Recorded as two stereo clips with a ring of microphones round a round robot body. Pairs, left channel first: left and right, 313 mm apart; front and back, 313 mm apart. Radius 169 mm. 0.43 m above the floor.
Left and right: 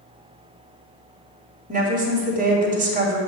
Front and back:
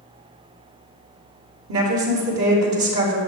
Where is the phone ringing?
I don't hear a phone ringing.